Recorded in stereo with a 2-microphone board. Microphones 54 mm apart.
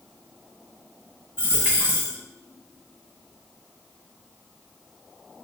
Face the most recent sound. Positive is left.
turn(degrees=-25)  # may be behind; listen again after turning